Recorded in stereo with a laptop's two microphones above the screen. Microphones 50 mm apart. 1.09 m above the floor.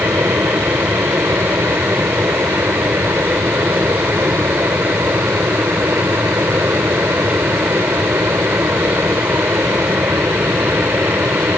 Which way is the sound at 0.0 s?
65° right (ahead or behind).